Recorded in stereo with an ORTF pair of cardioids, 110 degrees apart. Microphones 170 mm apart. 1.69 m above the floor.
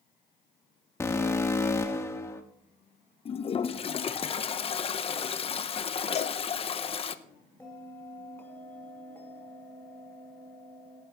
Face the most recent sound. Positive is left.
turn(degrees=10)